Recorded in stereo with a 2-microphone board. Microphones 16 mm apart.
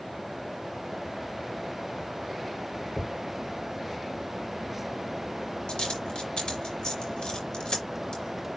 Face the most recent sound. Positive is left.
turn(degrees=80)